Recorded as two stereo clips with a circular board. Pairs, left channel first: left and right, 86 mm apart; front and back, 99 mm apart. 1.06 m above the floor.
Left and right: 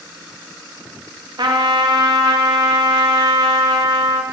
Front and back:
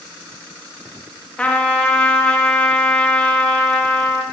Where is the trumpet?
75° right, 1.1 m.